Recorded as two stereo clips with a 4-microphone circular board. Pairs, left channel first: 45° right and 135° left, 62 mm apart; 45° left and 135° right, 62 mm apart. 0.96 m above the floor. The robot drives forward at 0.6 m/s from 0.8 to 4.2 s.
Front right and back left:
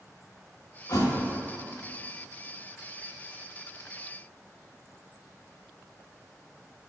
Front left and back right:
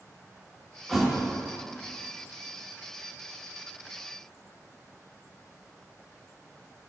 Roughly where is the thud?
Ahead right.